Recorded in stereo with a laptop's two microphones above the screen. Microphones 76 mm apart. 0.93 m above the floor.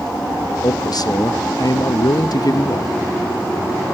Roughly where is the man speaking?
Left.